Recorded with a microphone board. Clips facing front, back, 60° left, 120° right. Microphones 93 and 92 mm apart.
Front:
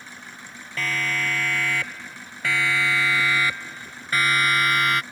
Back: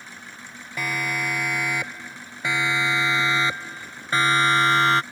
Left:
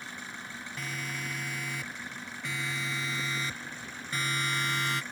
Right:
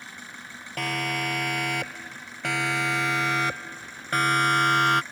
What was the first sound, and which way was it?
A siren, 105° right.